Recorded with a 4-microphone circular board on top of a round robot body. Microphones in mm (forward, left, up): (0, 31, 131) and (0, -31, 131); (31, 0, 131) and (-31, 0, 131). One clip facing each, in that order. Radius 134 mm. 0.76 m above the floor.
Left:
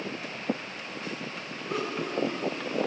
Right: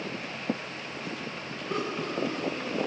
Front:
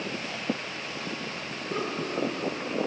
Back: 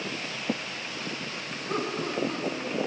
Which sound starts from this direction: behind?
Laughter, at 1.7 s.